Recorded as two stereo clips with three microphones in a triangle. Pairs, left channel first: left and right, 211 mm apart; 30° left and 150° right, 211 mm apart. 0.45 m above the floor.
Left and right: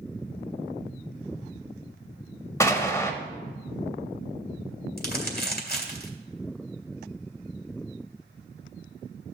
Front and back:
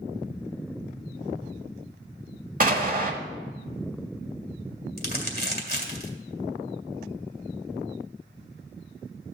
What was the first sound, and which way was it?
An explosion, 165° left.